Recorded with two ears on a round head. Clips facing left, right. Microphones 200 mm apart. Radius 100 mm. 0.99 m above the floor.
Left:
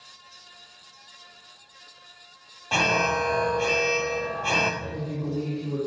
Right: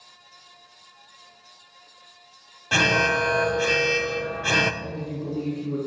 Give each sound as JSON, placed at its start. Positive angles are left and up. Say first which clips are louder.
{"t": 2.7, "sound": "an alarm", "louder": "right 2 dB", "side_deg": -20, "distance_m": 0.8}
{"t": 4.8, "sound": "a woman speaking", "louder": "even", "side_deg": -15, "distance_m": 3.0}